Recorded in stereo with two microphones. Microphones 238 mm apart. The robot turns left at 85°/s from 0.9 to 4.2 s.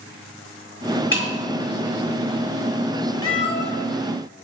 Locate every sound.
1.1 s breaking glass: 55° left (ahead or behind), 1.1 m; by 1.3 s 45° left (ahead or behind), 1.1 m
3.2 s a cat meowing: 65° left, 0.9 m; by 3.7 s 20° left, 0.9 m